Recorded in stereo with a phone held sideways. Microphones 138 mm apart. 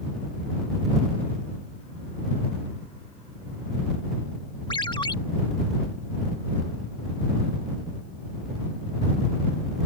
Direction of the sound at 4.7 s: 35° left (ahead or behind).